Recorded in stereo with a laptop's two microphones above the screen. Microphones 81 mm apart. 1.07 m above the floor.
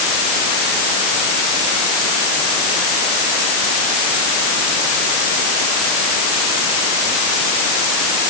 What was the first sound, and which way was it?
Only background noise.